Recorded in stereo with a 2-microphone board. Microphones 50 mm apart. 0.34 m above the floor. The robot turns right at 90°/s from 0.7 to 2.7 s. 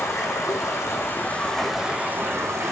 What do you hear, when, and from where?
0.0 s running water: 95° left, 3.5 m; by 2.7 s 85° right, 3.5 m